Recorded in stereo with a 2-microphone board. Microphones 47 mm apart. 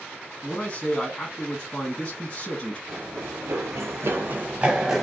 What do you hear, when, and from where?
0.4 s a man speaking: 25° left (ahead or behind), 2.0 m
2.9 s running footsteps: 75° right (ahead or behind), 0.9 m; by 5.0 s 5° right (ahead or behind), 0.6 m